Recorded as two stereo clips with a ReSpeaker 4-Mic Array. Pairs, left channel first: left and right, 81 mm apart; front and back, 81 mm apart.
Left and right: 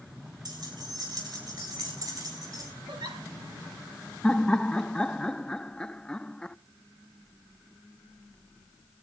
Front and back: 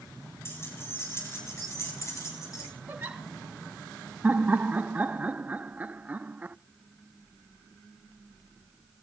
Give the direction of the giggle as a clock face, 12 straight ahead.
4 o'clock.